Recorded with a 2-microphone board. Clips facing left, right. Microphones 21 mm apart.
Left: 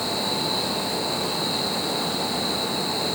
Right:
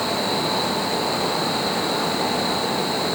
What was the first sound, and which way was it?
Only background noise.